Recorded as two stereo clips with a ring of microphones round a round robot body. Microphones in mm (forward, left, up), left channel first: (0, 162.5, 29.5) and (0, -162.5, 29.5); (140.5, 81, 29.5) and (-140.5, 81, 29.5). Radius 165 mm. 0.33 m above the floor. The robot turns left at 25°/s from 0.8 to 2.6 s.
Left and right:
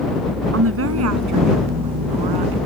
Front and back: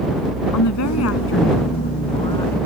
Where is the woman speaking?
40° right; by 2.6 s 85° right.